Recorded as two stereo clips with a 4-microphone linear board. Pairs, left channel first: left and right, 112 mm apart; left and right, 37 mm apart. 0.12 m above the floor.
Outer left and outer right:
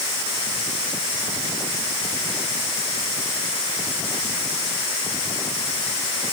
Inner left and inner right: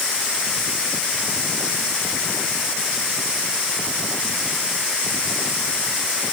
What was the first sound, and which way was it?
Only background noise.